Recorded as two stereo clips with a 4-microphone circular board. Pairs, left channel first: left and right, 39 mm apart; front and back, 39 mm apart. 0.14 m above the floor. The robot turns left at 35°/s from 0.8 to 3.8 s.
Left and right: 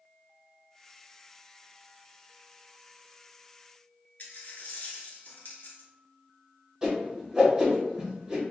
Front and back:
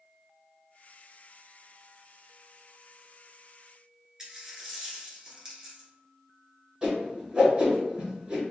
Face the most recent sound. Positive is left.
turn(degrees=-150)